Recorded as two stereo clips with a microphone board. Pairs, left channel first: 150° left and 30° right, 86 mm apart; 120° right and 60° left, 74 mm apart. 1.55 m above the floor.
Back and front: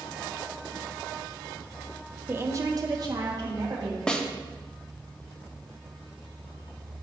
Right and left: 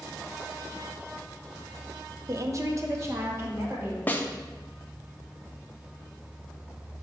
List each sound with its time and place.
2.3 s a woman speaking: 35° left, 0.6 m; by 4.0 s 5° left, 2.5 m
4.1 s a snare drum: 140° right, 0.7 m